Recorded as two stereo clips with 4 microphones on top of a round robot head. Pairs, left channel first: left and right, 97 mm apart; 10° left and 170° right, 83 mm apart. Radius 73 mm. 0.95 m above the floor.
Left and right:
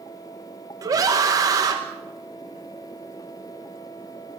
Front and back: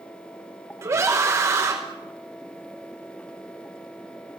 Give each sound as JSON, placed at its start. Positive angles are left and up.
{"t": 0.8, "sound": "a scream", "azimuth_deg": -130, "distance_m": 1.2}